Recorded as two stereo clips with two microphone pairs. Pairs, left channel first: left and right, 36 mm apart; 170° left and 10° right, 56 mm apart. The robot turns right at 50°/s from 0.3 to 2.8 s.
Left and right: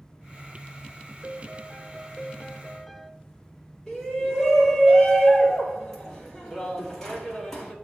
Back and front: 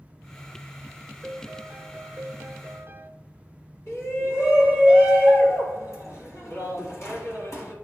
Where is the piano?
75° right, 0.5 m; by 3.1 s straight ahead, 0.5 m.